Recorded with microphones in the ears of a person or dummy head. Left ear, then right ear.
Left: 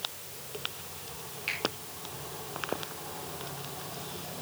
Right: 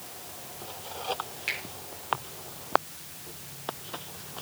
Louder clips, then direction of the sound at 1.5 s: Right 2 dB; 15° right (ahead or behind).